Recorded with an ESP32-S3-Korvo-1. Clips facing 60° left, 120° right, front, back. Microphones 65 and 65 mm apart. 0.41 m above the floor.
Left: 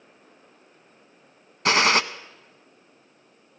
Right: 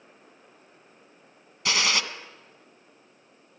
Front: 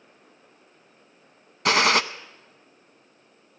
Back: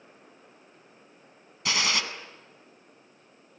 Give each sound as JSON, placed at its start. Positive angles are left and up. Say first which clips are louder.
{"t": 1.6, "sound": "a gunshot", "louder": "left 7 dB, front 9 dB", "azimuth_deg": 25, "distance_m": 0.5}